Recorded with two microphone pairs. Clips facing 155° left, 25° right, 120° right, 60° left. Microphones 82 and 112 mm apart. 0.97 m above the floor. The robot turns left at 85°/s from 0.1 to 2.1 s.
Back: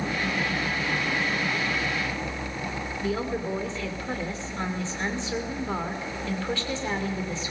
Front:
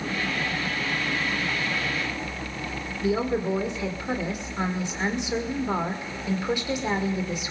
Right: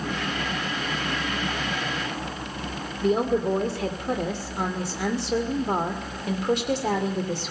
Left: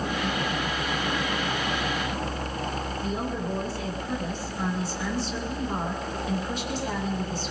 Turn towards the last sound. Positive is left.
turn(degrees=-100)